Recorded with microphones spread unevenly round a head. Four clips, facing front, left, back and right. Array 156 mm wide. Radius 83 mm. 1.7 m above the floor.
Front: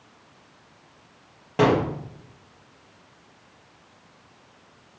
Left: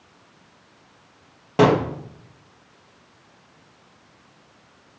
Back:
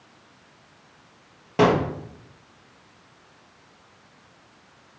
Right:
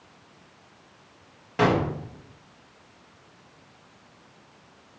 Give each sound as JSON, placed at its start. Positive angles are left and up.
{"t": 1.6, "sound": "a gunshot", "azimuth_deg": 100, "distance_m": 1.8}